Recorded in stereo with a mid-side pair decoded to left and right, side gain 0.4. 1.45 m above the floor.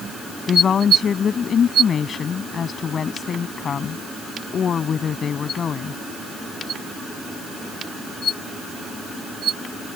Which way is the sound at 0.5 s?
55° left.